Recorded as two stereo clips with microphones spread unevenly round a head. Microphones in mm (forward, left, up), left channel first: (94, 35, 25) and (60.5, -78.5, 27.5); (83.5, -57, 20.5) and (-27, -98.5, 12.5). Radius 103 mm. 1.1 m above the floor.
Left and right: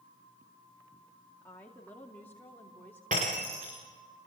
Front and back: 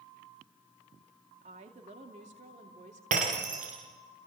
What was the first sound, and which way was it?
A woman speaking, 155° left.